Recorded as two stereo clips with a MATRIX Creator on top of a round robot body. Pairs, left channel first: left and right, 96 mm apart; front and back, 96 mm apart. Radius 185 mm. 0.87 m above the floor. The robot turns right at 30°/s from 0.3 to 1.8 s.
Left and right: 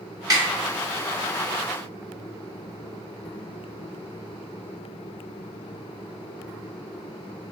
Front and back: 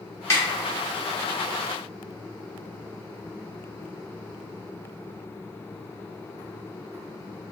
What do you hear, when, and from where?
0.3 s a snare drum: 55° right, 1.2 m; by 0.4 s 50° right, 1.2 m